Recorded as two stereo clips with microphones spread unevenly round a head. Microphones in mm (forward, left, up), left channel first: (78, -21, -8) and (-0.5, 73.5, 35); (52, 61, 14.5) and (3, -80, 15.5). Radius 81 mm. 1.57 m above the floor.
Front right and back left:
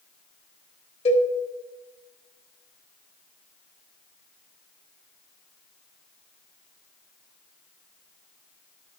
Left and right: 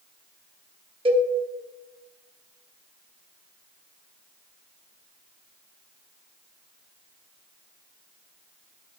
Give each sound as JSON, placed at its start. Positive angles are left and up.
{"t": 1.1, "sound": "a cowbell", "azimuth_deg": -100, "distance_m": 0.9}